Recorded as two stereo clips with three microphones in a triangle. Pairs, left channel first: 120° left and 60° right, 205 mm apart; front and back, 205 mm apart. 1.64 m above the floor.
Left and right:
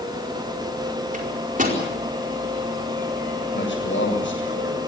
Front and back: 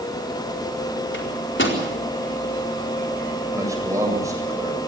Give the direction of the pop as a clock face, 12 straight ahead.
No pop in this recording.